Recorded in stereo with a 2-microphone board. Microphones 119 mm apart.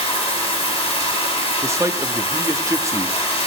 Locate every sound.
0.0 s running water: 45° left (ahead or behind), 5 m
1.6 s a man speaking: 25° right (ahead or behind), 0.7 m